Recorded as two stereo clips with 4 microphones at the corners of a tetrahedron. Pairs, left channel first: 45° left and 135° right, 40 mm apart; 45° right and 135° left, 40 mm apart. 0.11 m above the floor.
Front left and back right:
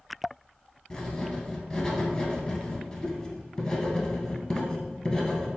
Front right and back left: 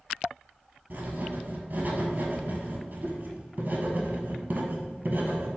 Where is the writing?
115° left, 1.3 m.